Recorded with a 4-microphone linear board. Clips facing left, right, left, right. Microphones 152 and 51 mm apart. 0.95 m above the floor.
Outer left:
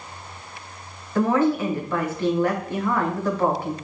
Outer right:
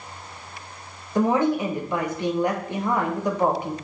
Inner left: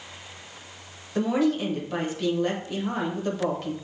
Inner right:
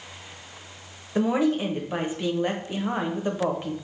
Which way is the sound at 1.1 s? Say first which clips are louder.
Outer left 1 dB, inner right 1 dB; 15° right (ahead or behind).